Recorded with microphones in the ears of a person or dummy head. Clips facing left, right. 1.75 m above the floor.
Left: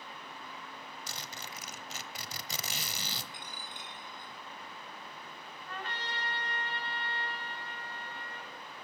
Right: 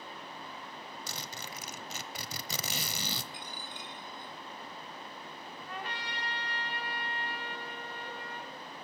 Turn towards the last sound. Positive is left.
turn(degrees=-10)  # may be behind; listen again after turning